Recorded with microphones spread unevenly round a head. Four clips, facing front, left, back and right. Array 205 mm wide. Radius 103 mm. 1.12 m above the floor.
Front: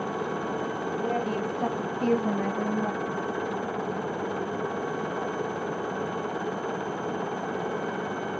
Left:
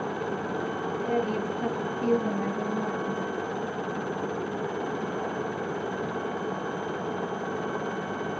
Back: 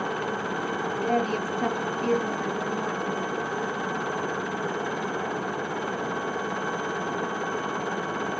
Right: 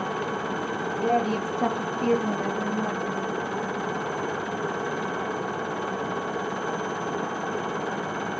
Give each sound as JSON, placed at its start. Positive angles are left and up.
{"t": 1.0, "sound": "a woman speaking", "azimuth_deg": -115, "distance_m": 1.2}